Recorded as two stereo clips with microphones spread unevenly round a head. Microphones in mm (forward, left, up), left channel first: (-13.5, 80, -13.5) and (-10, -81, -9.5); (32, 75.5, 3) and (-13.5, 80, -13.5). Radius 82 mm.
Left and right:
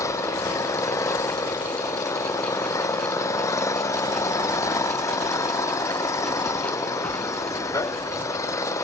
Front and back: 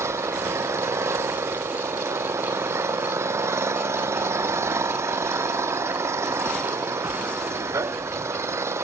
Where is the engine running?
165° left.